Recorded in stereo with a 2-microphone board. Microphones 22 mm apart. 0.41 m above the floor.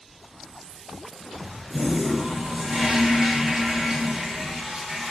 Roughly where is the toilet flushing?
Right.